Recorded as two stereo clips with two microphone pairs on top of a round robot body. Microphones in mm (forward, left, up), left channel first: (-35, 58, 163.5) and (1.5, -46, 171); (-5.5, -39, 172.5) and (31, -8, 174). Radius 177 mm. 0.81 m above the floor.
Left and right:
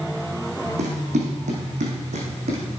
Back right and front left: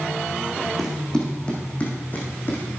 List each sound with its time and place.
0.8 s running footsteps: 50° right, 2.5 m; by 2.6 s 95° right, 2.5 m